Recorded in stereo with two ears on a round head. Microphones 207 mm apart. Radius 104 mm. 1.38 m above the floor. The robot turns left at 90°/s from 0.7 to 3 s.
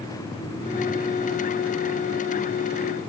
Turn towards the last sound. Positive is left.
No sound to turn to.